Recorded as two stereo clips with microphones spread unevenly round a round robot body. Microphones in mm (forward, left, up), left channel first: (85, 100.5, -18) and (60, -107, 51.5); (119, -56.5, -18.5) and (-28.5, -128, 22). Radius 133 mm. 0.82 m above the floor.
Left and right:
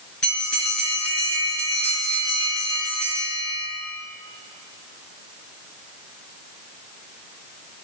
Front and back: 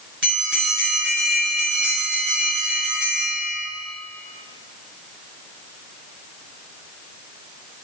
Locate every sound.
0.2 s a bell: 170° left, 5 m